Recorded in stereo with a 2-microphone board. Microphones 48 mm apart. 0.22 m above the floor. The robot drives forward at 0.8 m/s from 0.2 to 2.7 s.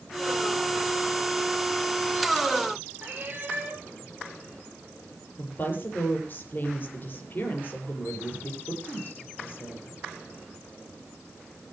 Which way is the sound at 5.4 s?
40° left (ahead or behind).